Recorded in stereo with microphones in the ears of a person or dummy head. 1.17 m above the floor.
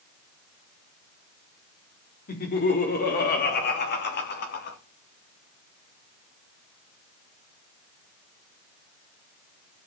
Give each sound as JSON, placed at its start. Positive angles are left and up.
{"t": 2.3, "sound": "laughter", "side_deg": 45, "distance_m": 3.5}